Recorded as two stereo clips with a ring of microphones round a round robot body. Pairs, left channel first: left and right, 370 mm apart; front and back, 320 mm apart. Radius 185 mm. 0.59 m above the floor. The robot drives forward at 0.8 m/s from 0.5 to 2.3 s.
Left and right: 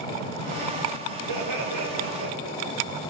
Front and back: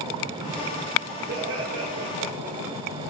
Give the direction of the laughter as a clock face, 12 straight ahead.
4 o'clock.